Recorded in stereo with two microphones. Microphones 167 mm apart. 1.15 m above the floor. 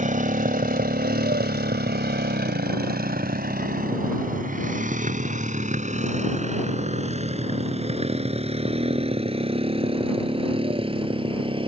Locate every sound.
0.0 s a motorcycle: 50° right (ahead or behind); by 11.7 s 30° right (ahead or behind)